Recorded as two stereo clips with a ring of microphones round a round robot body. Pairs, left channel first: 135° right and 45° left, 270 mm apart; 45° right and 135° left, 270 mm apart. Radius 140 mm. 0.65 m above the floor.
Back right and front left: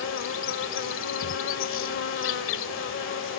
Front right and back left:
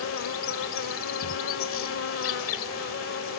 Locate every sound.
0.0 s an insect: 90° right